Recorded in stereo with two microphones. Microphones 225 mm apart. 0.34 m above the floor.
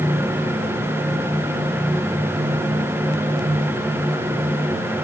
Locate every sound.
Only background noise.